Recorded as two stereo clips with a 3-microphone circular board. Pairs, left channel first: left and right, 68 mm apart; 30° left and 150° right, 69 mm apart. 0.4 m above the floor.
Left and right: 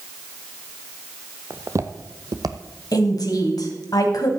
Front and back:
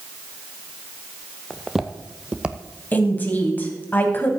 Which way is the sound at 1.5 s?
55° right.